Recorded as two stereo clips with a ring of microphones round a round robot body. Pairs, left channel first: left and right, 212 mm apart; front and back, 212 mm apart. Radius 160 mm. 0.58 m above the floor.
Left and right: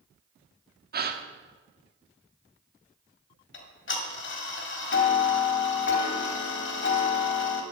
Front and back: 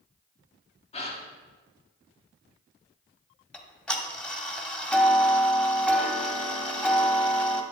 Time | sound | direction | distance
0.9 | a gasp | 60° right | 1.0 m
3.5 | ticking | 85° left | 1.8 m